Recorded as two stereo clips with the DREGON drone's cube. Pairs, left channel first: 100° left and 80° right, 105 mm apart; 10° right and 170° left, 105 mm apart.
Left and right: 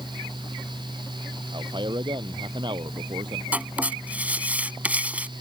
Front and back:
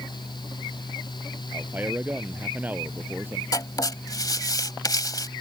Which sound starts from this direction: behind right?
A man speaking, at 1.5 s.